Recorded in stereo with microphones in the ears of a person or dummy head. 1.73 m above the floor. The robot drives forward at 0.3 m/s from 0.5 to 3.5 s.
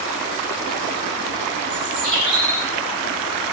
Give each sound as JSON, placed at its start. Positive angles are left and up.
{"t": 1.7, "sound": "a bird", "side_deg": -40, "distance_m": 4.5}